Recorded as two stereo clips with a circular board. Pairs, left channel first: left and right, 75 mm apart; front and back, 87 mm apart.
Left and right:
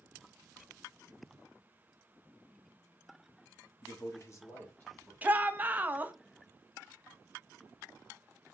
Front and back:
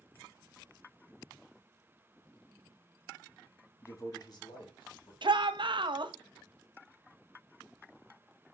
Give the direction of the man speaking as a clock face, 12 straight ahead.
10 o'clock.